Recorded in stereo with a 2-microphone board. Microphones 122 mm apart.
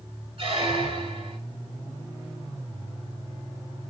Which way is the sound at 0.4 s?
50° right (ahead or behind).